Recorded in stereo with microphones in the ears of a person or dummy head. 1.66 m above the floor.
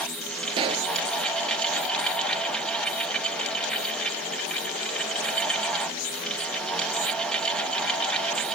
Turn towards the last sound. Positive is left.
turn(degrees=-25)  # may be behind; listen again after turning